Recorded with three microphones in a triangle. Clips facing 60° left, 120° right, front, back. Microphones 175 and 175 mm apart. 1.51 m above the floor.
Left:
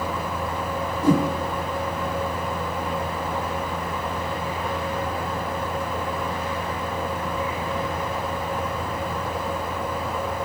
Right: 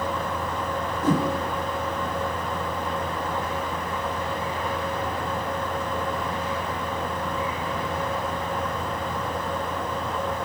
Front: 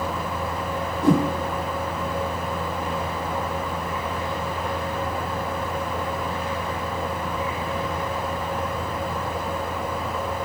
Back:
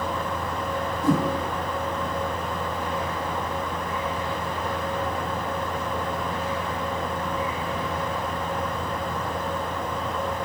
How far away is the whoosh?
About 1.3 m.